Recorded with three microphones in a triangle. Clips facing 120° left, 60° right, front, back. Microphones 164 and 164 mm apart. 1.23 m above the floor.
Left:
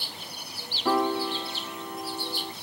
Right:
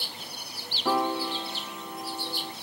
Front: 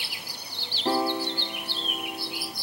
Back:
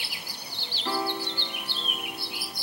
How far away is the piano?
About 0.5 m.